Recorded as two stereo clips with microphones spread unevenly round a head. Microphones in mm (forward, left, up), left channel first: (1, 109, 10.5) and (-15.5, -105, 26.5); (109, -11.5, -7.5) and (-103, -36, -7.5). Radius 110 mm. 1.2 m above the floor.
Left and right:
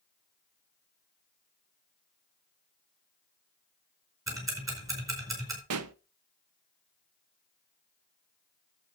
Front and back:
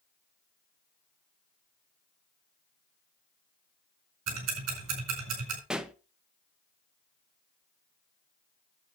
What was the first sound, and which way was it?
Ticking, 170° right.